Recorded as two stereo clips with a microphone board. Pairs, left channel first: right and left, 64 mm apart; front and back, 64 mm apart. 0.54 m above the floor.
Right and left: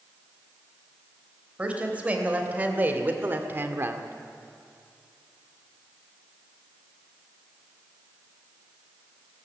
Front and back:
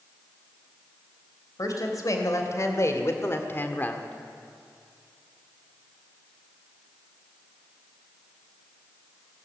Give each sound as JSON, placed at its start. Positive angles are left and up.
{"t": 1.6, "sound": "a woman speaking", "azimuth_deg": 20, "distance_m": 3.0}